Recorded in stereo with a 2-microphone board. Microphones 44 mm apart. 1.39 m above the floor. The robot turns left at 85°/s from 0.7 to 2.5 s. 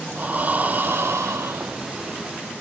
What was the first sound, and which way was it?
Breathing, 35° right.